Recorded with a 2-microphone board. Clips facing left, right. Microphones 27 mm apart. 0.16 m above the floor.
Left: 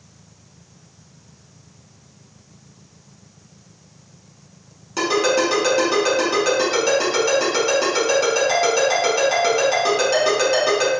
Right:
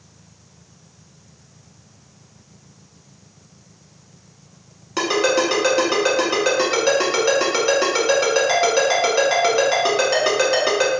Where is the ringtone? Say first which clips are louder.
Even; 25° right (ahead or behind), 1.0 m.